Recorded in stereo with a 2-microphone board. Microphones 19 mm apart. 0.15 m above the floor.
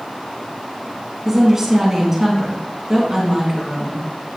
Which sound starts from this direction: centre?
A woman speaking, at 1.2 s.